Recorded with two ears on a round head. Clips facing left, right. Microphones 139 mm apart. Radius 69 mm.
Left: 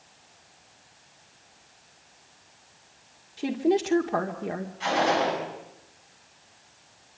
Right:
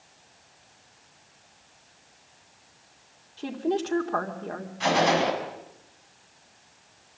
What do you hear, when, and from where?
3.4 s a woman speaking: 15° left (ahead or behind), 1.9 m
4.8 s a gunshot: 65° right (ahead or behind), 6.5 m